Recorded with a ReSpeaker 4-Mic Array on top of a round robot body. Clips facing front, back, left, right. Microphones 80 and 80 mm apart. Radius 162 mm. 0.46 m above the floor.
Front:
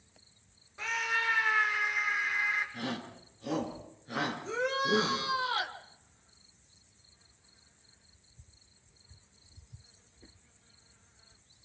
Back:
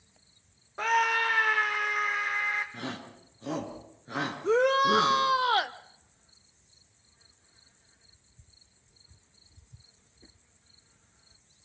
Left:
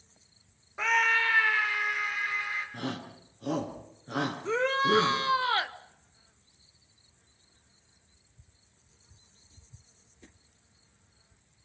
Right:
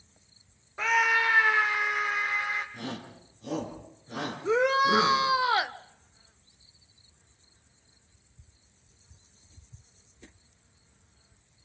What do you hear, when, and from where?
0.8 s a scream: straight behind, 1.0 m; by 2.6 s 145° right, 3 m
2.7 s a shout: 120° left, 7.5 m
4.4 s a shout: 165° right, 2.0 m